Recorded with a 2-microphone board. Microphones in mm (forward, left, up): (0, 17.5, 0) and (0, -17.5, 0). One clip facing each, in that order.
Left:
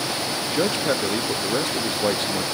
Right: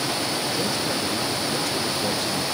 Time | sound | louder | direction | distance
0.5 | a man speaking | left 3 dB | 45° left (ahead or behind) | 0.5 m